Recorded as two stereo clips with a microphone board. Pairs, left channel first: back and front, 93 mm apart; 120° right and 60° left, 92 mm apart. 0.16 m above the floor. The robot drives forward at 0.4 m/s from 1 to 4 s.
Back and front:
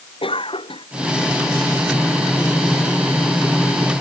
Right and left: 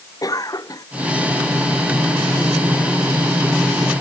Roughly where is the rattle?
No rattle in this recording.